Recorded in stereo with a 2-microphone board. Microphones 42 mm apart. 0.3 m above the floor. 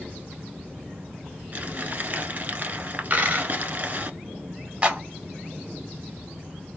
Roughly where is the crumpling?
Right.